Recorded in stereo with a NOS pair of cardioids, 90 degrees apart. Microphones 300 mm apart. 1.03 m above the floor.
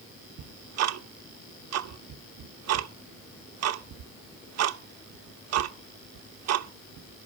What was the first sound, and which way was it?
Ticking, 60° right.